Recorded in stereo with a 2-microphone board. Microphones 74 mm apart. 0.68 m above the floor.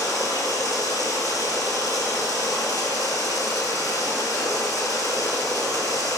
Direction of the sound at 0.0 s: 55° left (ahead or behind).